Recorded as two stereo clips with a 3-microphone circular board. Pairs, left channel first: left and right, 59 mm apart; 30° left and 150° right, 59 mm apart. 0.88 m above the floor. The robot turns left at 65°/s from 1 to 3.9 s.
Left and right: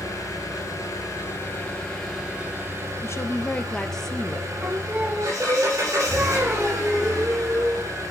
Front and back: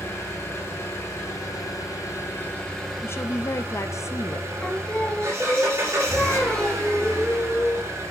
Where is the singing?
40° right, 1.2 m.